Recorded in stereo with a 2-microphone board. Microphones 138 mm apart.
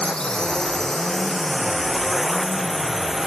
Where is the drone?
5° left (ahead or behind); by 3.3 s 5° right (ahead or behind).